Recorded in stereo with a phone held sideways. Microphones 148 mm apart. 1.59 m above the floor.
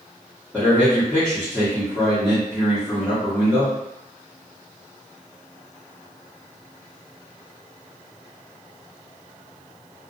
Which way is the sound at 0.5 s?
10° left (ahead or behind).